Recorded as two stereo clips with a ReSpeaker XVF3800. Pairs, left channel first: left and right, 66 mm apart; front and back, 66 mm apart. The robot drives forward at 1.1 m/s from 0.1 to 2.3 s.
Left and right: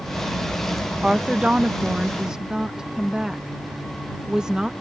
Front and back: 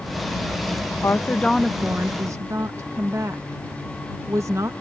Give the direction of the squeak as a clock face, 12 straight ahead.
No squeak in this recording.